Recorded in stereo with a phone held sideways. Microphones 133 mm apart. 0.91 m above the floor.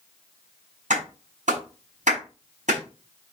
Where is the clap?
65° right (ahead or behind), 6.5 m.